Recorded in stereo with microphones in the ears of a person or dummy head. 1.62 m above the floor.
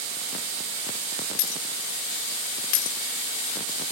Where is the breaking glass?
45° left (ahead or behind), 2.5 m.